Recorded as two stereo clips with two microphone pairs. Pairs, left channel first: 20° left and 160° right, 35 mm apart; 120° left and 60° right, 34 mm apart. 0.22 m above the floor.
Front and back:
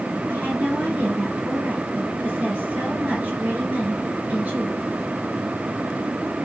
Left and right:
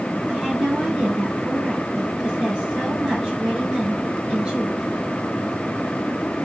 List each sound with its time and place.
0.3 s a woman speaking: 115° right, 3.5 m